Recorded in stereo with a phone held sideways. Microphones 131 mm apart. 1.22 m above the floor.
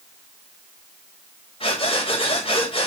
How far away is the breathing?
About 4 m.